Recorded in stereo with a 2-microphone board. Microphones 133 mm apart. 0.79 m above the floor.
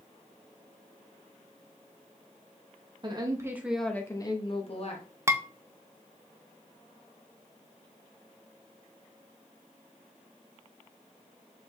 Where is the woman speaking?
35° right (ahead or behind), 0.9 m; by 5.0 s 50° left (ahead or behind), 1.1 m.